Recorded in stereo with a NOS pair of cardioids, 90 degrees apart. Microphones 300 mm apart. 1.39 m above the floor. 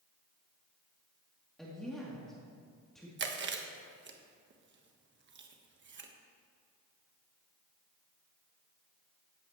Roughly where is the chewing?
Ahead right.